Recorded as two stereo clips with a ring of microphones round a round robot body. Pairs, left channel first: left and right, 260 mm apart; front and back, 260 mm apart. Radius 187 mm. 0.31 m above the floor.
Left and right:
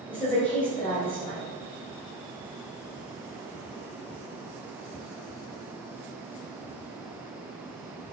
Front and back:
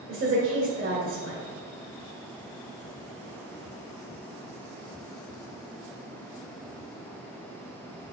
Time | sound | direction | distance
0.1 | a woman speaking | 165° left | 1.4 m